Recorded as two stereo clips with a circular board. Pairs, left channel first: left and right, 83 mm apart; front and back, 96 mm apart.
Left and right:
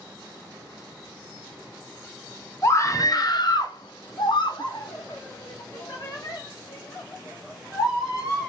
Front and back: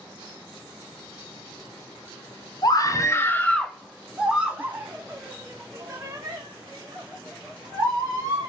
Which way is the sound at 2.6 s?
40° left.